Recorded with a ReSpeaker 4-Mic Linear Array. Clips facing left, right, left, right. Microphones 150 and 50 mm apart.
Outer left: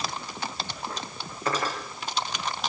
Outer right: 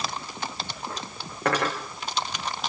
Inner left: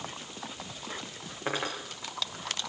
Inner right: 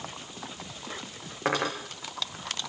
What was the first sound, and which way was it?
Cutlery clinking, 65° right (ahead or behind).